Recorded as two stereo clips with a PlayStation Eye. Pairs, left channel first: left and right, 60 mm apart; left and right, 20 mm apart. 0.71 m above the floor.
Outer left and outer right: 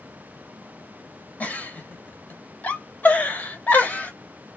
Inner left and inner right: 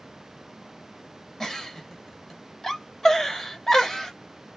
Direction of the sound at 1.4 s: 25° left (ahead or behind).